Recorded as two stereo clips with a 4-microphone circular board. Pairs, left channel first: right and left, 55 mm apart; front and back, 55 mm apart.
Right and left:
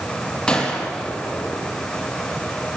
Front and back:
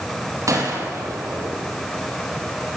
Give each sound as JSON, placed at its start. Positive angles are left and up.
{"t": 0.5, "sound": "a gunshot", "azimuth_deg": -165, "distance_m": 7.0}